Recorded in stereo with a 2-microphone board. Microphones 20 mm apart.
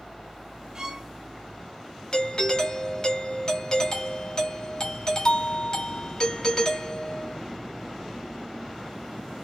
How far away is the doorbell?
About 1.5 m.